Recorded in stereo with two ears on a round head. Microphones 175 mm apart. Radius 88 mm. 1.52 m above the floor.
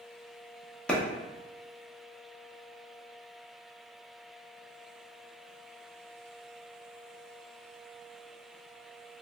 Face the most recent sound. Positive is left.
turn(degrees=5)  # may be behind; listen again after turning